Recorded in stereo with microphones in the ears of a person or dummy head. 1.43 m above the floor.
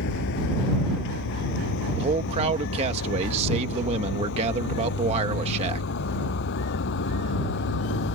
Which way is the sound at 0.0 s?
65° left (ahead or behind).